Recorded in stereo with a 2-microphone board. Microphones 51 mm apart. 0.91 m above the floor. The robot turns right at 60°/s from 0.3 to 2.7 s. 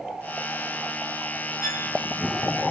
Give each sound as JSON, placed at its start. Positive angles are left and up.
{"t": 1.6, "sound": "a violin", "side_deg": 90, "distance_m": 9.0}